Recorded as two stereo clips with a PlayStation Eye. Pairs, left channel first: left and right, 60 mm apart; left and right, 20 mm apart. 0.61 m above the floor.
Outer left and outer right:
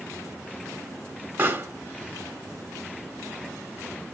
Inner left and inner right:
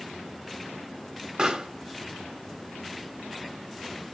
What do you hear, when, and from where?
1.4 s a pop: 35° right (ahead or behind), 0.7 m